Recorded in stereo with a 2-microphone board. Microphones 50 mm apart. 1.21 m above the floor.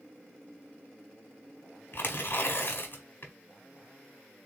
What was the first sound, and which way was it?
Tearing paper, 50° left (ahead or behind).